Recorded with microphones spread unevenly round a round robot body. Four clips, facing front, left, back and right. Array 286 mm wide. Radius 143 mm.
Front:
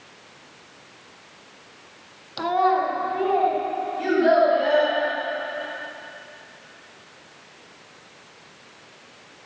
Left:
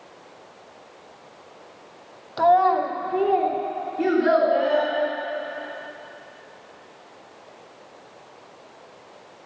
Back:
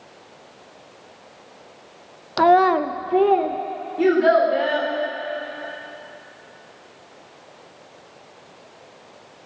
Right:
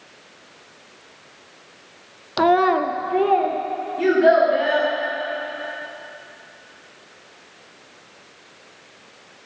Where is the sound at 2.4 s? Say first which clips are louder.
Right 1 dB, back 5 dB; 115° right, 0.7 m; by 3.6 s straight behind, 1.7 m.